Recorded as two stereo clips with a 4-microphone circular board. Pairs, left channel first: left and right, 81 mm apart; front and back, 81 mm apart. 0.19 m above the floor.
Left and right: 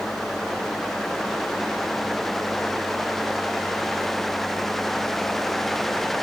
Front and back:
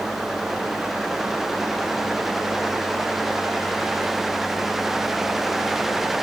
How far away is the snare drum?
No snare drum in this recording.